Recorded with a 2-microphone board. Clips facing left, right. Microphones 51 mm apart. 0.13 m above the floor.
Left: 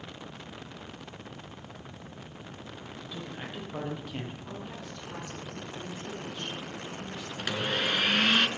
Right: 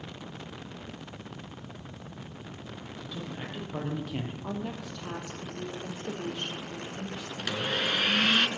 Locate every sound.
3.0 s a man speaking: 10° left (ahead or behind), 4.5 m; by 4.3 s 10° right (ahead or behind), 3.5 m
4.4 s a woman speaking: 70° right (ahead or behind), 3 m
7.4 s a blender: 10° left (ahead or behind), 1.0 m